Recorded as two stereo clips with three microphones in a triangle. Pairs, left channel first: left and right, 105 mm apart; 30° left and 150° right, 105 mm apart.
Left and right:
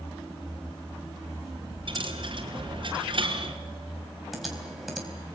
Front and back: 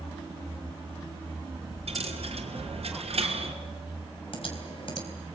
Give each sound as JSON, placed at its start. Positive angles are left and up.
{"t": 1.9, "sound": "a dropped coin", "azimuth_deg": -130, "distance_m": 3.0}
{"t": 4.3, "sound": "typing on a keyboard", "azimuth_deg": 0, "distance_m": 4.0}